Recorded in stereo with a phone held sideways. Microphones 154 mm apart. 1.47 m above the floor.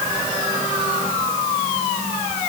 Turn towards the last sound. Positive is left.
No sound to turn to.